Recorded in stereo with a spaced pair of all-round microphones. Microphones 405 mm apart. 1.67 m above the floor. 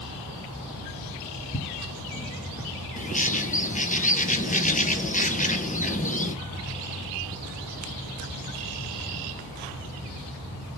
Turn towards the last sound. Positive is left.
turn(degrees=20)  # may be behind; listen again after turning